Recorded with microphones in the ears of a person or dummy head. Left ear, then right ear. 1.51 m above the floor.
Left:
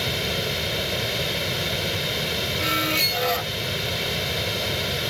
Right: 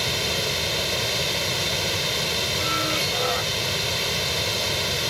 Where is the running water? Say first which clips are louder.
Right 1 dB; 20° right (ahead or behind).